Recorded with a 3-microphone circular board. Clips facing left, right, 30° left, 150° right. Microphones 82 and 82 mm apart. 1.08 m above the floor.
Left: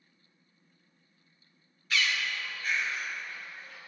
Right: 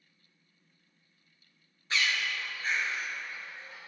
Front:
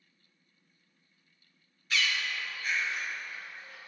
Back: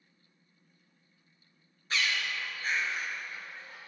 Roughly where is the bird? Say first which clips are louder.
Even, even; behind right.